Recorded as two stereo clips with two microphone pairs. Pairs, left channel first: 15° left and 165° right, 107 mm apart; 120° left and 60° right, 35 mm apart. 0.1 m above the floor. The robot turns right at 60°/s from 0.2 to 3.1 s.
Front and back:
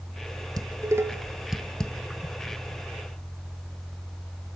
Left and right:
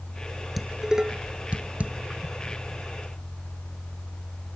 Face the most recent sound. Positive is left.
turn(degrees=10)